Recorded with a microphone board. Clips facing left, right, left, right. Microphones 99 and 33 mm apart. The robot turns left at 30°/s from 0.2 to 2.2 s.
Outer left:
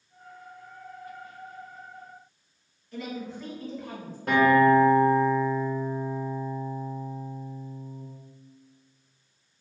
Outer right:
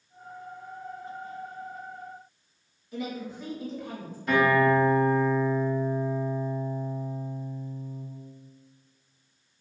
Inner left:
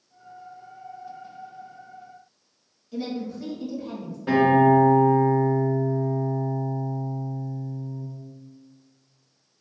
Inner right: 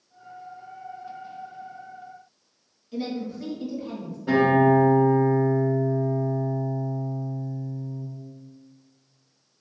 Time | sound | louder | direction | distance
2.9 | a woman speaking | outer right 1 dB, even | 10° right (ahead or behind) | 1.7 m
4.3 | a guitar | outer left 3 dB, inner left 1 dB | 60° left (ahead or behind) | 1.7 m